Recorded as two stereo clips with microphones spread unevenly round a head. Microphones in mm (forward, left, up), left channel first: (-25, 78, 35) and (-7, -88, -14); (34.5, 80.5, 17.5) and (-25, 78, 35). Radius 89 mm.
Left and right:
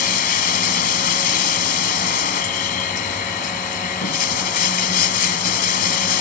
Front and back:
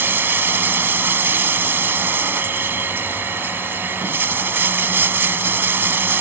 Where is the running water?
130° left.